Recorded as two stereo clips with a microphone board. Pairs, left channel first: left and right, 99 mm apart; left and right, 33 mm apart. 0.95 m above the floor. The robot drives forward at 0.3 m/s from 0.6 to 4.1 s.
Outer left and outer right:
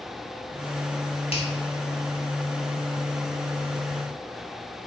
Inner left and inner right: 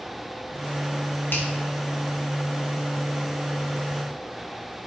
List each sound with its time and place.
1.3 s a finger snap: 75° left (ahead or behind), 1.3 m